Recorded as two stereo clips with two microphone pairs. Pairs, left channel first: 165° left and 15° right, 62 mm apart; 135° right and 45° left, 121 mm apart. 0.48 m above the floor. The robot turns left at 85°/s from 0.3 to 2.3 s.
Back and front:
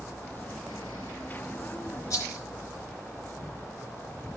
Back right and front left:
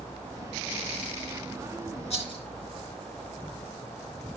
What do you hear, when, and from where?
2.1 s a rattle: 160° right, 4 m; by 2.4 s straight behind, 4 m